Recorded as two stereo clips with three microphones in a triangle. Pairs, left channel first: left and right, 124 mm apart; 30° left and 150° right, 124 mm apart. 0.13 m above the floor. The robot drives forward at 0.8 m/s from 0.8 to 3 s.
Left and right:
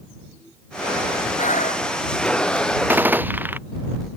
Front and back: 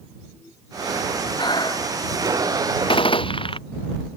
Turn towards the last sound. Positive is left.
turn(degrees=-15)